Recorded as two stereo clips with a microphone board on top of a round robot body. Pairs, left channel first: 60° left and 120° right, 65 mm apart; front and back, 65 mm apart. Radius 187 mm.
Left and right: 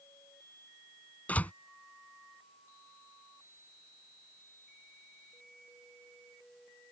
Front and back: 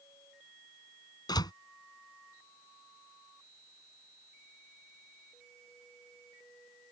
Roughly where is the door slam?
Ahead.